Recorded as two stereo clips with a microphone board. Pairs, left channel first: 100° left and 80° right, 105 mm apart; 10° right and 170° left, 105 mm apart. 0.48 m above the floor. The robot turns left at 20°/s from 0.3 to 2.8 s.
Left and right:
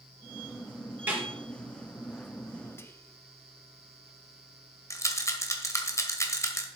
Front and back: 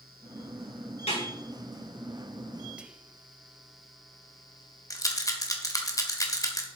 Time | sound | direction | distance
1.1 | a snare drum | 10° right | 6 m
2.8 | whispering | 105° left | 0.8 m
4.9 | a rattle | 40° left | 1.4 m